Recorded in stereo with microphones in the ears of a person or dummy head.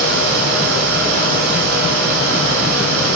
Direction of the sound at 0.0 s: 65° right (ahead or behind).